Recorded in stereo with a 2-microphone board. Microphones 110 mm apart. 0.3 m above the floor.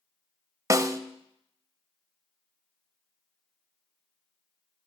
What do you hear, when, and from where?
0.7 s a snare drum: 30° right (ahead or behind), 0.6 m